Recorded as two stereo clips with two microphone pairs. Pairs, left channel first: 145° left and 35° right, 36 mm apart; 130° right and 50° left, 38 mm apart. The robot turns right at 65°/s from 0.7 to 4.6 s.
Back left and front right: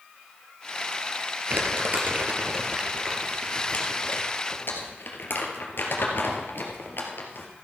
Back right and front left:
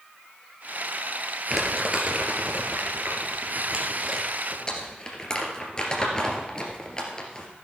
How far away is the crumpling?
About 2.5 m.